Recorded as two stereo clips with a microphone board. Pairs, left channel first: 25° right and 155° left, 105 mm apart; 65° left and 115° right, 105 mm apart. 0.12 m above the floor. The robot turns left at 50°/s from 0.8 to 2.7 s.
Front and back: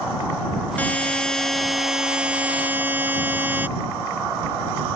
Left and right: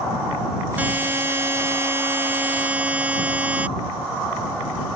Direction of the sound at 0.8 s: 70° right.